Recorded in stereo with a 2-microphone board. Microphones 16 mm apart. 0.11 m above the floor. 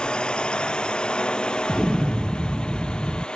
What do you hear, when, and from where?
0.0 s a drone: 75° left (ahead or behind)
1.7 s an explosion: 30° right (ahead or behind)